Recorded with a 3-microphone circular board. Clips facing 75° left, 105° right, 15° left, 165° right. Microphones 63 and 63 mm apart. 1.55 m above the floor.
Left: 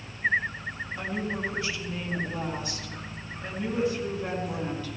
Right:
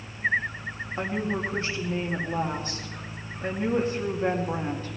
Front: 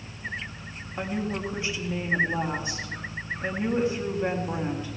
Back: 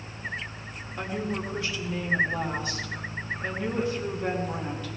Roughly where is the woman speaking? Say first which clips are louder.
Right 4 dB, front 1 dB; ahead right.